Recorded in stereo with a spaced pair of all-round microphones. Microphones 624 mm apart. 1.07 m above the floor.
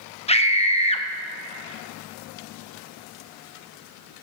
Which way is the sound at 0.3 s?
10° left (ahead or behind).